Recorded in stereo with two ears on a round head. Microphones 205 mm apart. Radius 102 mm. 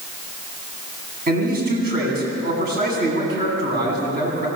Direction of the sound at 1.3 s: 45° right (ahead or behind).